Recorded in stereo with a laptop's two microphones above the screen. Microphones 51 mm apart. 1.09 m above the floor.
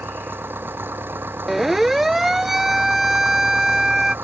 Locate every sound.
0.0 s an engine running: 45° right (ahead or behind)
1.5 s a siren: 5° right (ahead or behind); by 4.2 s 10° right (ahead or behind)